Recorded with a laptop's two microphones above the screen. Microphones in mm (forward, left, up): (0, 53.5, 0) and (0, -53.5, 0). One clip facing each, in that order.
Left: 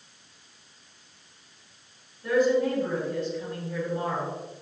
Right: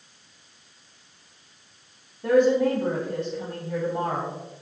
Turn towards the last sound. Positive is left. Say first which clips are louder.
# right 4 dB
turn(degrees=-75)  # may be behind; listen again after turning